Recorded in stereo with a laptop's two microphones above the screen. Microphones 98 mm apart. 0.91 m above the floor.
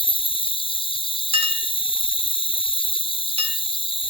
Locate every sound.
0.0 s an insect: 65° left (ahead or behind), 0.8 m
1.3 s a clink: 85° right, 1.9 m